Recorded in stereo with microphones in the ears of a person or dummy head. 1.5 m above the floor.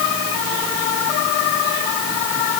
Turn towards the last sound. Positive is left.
No sound to turn to.